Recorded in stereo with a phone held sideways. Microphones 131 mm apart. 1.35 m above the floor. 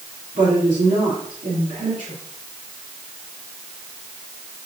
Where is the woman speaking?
80° right, 3.5 m.